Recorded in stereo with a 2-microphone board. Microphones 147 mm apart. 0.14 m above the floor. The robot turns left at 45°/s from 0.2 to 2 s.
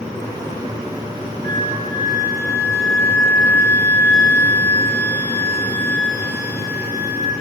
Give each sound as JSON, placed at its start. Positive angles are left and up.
{"t": 1.4, "sound": "a flute", "side_deg": -60, "distance_m": 2.0}